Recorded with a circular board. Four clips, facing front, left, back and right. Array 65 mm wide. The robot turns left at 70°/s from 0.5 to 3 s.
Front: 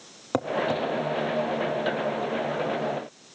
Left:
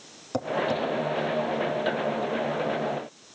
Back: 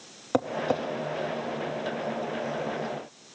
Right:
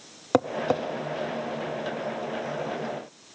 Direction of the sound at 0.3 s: 85° right.